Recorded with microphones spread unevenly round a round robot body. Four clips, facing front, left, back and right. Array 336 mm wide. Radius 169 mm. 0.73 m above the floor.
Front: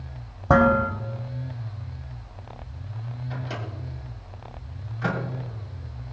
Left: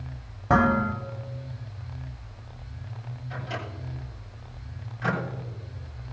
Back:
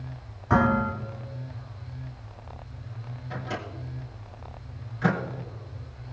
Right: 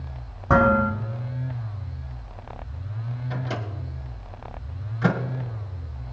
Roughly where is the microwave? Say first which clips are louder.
Right 3 dB, back 2 dB; right.